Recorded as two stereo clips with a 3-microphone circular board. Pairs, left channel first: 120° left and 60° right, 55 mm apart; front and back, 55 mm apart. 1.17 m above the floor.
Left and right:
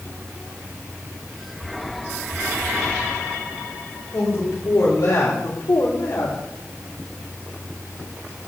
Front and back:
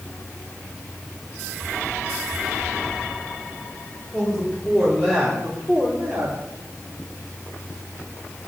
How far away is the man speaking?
About 3.5 m.